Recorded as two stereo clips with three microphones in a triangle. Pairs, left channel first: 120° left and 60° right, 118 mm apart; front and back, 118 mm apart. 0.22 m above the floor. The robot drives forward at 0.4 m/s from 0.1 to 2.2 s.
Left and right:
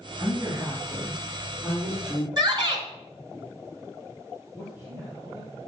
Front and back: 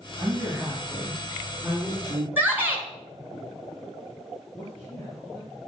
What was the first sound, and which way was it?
A woman speaking, 110° right.